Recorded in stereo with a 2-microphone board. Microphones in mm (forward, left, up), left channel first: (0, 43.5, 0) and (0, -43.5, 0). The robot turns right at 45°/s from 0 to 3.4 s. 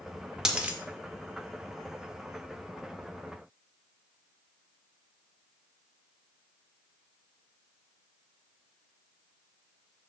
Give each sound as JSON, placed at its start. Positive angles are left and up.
{"t": 0.5, "sound": "a dropped coin", "side_deg": -5, "distance_m": 0.9}